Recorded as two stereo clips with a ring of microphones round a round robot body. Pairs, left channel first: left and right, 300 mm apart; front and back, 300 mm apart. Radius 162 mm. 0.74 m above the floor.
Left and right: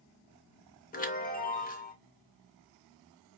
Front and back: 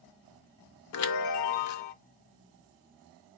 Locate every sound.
0.9 s a chime: 30° left, 0.6 m